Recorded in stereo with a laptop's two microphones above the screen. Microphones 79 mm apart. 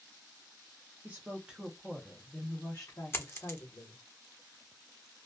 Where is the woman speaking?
25° right (ahead or behind), 0.9 m; by 4.0 s 65° left (ahead or behind), 1.2 m.